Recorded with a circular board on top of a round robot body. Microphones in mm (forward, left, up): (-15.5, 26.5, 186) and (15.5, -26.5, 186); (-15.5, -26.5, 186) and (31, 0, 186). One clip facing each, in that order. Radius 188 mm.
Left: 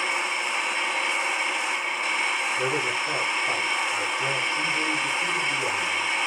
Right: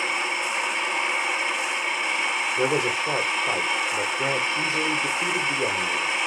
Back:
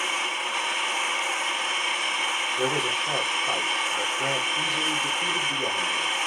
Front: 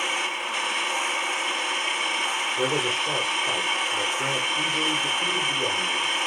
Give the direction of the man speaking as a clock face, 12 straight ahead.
2 o'clock.